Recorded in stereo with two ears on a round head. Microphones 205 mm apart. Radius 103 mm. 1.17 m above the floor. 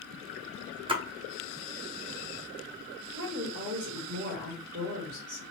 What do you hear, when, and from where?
0.9 s a splash: 25° right (ahead or behind), 0.7 m
3.1 s a woman speaking: 50° right (ahead or behind), 1.7 m